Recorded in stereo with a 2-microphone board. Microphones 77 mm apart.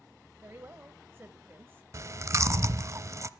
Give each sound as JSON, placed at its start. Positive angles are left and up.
{"t": 0.4, "sound": "a woman speaking", "side_deg": -30, "distance_m": 1.0}
{"t": 1.9, "sound": "chewing", "side_deg": -45, "distance_m": 0.7}